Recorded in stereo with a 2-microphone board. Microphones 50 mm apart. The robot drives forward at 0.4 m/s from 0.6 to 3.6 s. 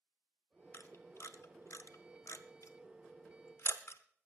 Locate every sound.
0.7 s a camera shutter: 50° left (ahead or behind), 1.1 m; by 4.0 s 60° left (ahead or behind), 1.0 m